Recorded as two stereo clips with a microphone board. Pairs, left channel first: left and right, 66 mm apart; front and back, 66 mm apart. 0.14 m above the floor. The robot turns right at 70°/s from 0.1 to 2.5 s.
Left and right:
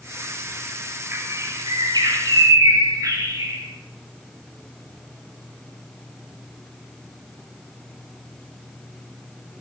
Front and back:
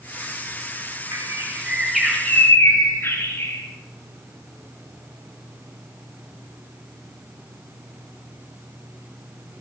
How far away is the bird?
About 5.5 m.